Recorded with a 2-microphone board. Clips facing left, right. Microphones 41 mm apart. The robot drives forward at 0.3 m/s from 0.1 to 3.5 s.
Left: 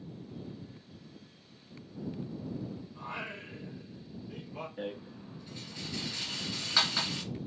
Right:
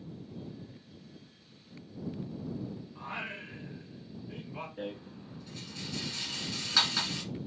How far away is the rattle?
About 1.8 m.